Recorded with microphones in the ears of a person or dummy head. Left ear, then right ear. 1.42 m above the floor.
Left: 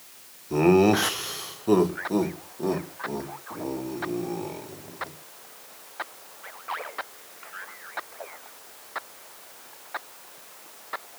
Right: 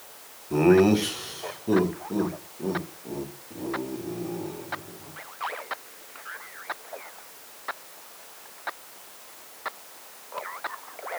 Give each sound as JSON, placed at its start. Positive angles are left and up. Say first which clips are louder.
{"t": 0.5, "sound": "laughter", "louder": "even", "side_deg": 5, "distance_m": 0.7}